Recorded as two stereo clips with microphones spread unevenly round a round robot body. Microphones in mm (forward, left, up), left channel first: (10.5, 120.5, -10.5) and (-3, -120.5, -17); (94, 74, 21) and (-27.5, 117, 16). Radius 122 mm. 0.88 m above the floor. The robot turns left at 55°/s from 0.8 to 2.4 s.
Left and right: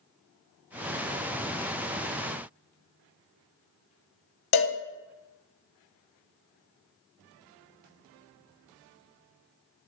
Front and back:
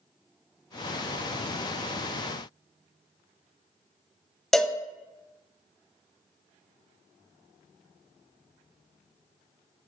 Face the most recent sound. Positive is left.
turn(degrees=70)